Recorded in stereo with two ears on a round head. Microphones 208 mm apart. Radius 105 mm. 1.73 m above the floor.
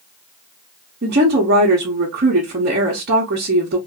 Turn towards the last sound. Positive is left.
turn(degrees=-45)  # may be behind; listen again after turning